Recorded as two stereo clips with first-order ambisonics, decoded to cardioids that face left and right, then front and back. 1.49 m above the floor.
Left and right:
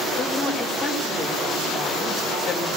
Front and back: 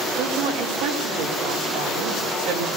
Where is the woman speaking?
175° right, 4.5 m.